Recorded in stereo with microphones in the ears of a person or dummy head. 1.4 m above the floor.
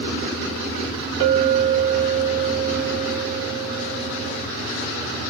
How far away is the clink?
About 1.8 m.